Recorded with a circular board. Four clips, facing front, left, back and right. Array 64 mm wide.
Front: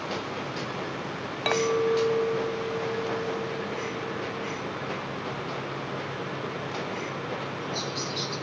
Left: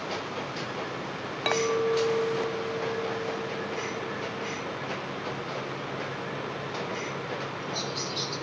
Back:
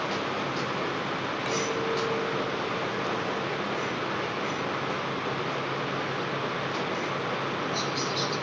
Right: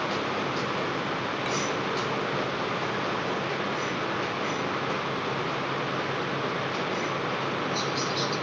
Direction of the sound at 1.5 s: 40° left.